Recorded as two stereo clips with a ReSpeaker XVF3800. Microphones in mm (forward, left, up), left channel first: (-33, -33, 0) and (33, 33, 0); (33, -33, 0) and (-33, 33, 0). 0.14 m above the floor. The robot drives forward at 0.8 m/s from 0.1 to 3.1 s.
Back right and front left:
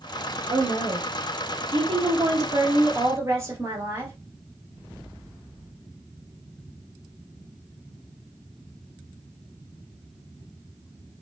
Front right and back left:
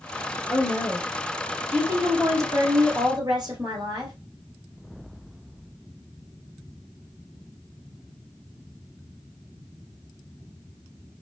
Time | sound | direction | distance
0.5 | a woman speaking | 45° left | 2.5 m